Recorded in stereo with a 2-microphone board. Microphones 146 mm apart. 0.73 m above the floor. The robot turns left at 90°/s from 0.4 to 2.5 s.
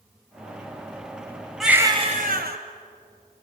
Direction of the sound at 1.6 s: Straight ahead.